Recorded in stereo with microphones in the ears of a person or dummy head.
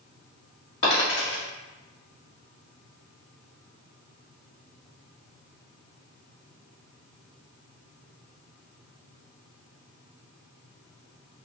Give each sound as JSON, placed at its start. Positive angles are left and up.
{"t": 0.8, "sound": "a dropped coin", "side_deg": 40, "distance_m": 1.8}